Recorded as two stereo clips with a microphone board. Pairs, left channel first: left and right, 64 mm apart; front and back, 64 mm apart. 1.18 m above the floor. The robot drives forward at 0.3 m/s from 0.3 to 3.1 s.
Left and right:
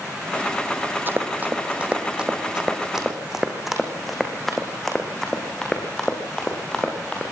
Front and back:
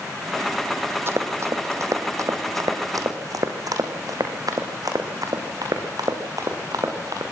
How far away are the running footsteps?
About 2 m.